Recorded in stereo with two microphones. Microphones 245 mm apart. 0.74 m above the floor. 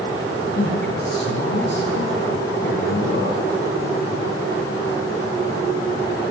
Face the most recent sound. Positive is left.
turn(degrees=45)  # may be behind; listen again after turning